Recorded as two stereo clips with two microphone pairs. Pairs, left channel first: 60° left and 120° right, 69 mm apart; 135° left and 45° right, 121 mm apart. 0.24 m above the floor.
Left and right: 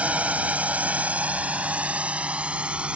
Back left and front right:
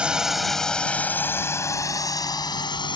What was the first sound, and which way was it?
A drone, 110° right.